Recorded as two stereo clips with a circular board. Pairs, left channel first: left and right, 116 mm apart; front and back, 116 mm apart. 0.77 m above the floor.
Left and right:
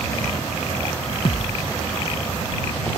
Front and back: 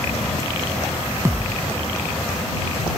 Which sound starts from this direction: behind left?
A thud, at 1.2 s.